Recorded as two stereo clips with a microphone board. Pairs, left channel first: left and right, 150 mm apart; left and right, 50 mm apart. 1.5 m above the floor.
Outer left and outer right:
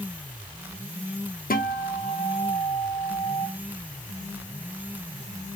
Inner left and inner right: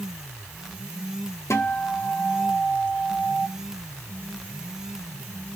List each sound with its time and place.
1.5 s a guitar: 70° left (ahead or behind), 0.7 m